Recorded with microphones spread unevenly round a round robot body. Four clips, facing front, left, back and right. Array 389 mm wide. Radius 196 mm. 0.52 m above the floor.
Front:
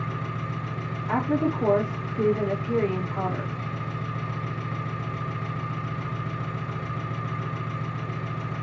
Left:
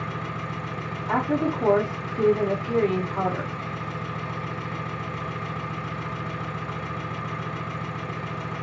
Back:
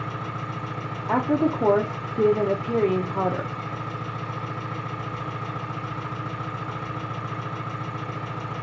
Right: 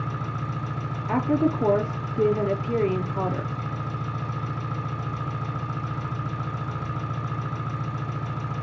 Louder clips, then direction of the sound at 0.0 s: Even, back 1 dB; 70° right.